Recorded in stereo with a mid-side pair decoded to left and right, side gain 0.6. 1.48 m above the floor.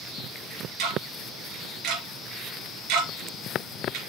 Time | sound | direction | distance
0.8 | ticking | 70° right | 3.5 m